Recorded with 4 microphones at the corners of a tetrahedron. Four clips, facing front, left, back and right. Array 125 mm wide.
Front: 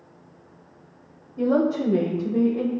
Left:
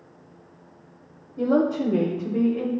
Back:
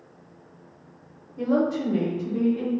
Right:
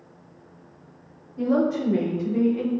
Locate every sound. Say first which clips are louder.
1.4 s a woman speaking: left 1 dB, front 2 dB; 60° left, 1.0 m; by 2.7 s 5° left, 1.3 m